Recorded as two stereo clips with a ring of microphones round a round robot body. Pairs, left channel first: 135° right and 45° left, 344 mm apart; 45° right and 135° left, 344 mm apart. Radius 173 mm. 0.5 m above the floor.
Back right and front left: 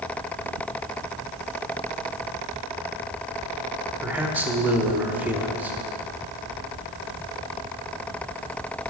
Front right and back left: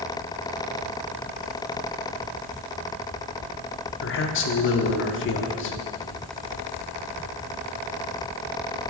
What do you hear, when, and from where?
4.0 s a man speaking: 35° right, 0.8 m